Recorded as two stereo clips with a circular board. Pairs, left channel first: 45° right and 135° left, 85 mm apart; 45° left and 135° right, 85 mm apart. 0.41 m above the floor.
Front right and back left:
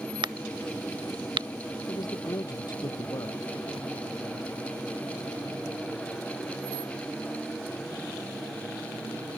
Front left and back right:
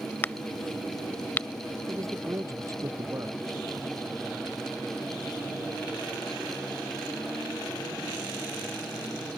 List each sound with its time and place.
0.2 s a crack: 110° left
1.9 s a man speaking: 85° right